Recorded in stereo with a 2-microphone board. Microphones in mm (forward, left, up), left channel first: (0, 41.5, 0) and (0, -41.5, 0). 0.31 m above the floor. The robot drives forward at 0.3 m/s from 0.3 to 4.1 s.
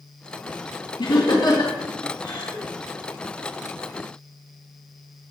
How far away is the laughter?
About 3 m.